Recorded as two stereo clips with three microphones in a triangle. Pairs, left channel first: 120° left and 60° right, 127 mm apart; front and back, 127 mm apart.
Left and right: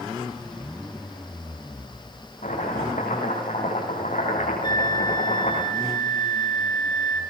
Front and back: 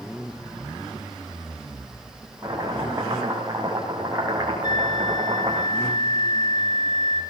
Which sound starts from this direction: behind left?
Chopping, at 2.4 s.